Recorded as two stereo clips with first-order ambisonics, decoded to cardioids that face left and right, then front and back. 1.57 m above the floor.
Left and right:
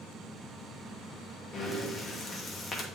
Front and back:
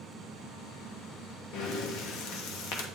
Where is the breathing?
15° left, 0.9 m.